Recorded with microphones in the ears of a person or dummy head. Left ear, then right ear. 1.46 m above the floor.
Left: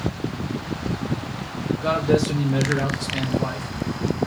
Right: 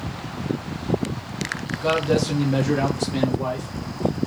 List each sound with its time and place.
1.8 s a man speaking: 10° right (ahead or behind), 0.7 m; by 4.2 s 50° right (ahead or behind), 1.6 m